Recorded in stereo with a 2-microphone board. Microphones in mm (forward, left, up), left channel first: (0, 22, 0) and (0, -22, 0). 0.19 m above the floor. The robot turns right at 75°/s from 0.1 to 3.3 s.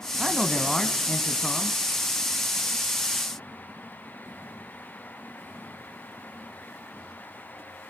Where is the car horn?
I don't hear a car horn.